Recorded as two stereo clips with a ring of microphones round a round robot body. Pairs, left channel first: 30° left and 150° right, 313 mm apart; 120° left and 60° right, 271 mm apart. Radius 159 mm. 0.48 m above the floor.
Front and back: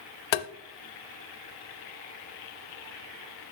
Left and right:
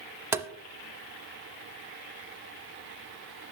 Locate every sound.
0.3 s tapping: 20° left, 0.5 m